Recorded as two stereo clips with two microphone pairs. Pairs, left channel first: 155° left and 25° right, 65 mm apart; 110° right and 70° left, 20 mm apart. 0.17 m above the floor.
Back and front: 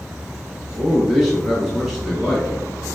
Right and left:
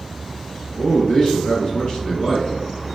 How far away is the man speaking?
About 1.4 m.